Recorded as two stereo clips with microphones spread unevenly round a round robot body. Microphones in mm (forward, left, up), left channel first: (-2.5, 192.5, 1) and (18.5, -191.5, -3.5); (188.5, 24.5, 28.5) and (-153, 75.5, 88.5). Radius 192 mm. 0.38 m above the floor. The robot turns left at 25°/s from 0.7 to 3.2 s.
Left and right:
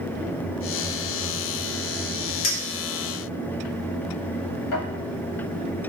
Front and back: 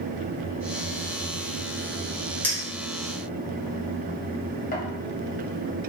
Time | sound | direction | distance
2.4 | a clink | 70° left | 1.5 m